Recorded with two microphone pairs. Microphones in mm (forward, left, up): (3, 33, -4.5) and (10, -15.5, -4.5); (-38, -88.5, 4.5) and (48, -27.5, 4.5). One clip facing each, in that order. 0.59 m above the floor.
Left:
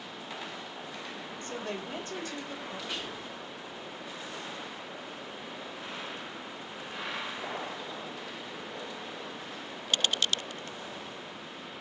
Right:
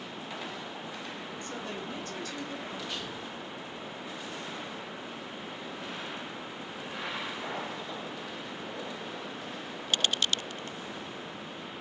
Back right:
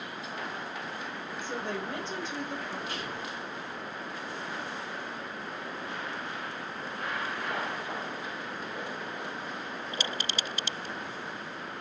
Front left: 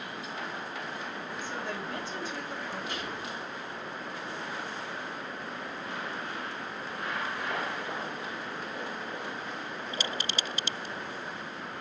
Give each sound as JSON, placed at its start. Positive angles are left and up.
{"t": 1.4, "sound": "a woman speaking", "azimuth_deg": 150, "distance_m": 3.0}
{"t": 2.9, "sound": "whispering", "azimuth_deg": 170, "distance_m": 5.5}